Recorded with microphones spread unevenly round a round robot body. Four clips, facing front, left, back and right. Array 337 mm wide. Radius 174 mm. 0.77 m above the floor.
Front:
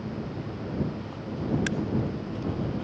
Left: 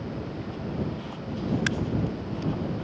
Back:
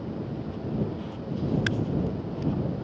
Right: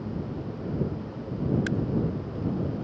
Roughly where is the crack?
Left.